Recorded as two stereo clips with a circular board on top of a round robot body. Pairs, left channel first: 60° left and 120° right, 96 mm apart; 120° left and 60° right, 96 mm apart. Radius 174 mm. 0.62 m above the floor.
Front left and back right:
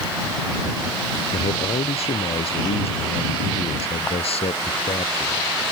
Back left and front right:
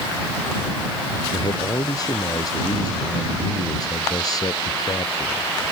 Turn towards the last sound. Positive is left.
turn(degrees=70)